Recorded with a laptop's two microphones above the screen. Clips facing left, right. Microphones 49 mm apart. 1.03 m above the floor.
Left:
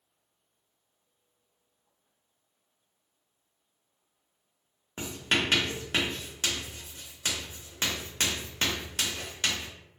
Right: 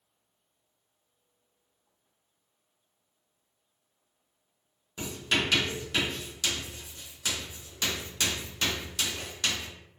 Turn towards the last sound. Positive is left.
turn(degrees=40)  # may be behind; listen again after turning